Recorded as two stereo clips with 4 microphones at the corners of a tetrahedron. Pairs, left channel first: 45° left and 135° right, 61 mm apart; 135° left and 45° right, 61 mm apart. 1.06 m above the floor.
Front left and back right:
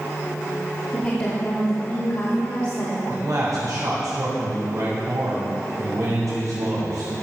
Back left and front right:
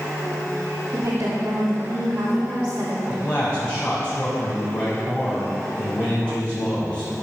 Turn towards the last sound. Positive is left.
turn(degrees=-155)